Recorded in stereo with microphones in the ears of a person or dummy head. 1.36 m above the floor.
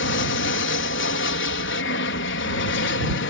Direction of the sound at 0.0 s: 55° left (ahead or behind).